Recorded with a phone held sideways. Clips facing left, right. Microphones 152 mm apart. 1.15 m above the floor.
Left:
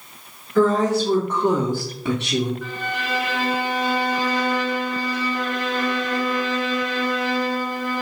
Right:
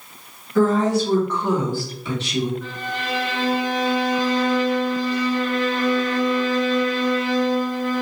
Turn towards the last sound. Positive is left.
turn(degrees=0)  # may be behind; listen again after turning